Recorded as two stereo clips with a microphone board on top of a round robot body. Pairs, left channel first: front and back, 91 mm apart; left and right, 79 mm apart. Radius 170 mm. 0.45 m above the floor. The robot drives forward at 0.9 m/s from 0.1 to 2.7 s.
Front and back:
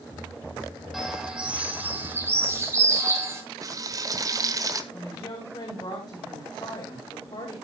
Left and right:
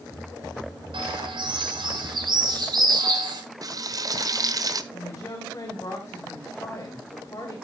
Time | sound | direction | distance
0.9 | a bird | 95° right | 3 m
3.6 | frying | 130° right | 1.2 m
4.9 | a woman speaking | 35° left | 2.5 m